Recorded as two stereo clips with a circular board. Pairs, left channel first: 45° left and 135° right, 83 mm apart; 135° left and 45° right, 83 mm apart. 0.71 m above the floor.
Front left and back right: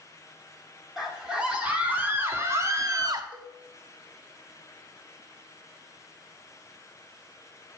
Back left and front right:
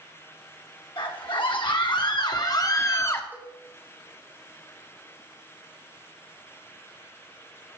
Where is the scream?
140° left, 1.6 m; by 3.2 s 165° right, 1.1 m.